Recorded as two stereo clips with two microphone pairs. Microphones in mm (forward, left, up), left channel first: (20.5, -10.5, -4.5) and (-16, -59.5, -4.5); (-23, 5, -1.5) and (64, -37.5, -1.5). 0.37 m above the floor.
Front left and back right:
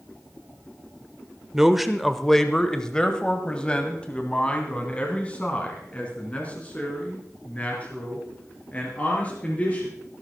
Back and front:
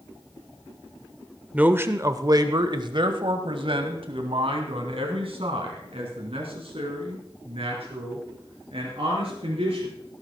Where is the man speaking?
70° right, 0.9 m; by 9.9 s 10° right, 6 m.